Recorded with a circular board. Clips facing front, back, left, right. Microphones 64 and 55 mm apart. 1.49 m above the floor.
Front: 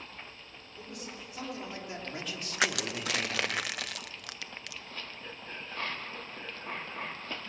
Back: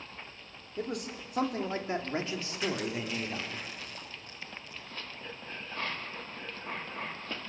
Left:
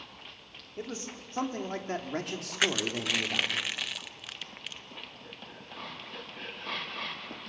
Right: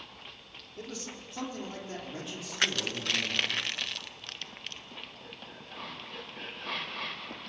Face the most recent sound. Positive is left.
turn(degrees=5)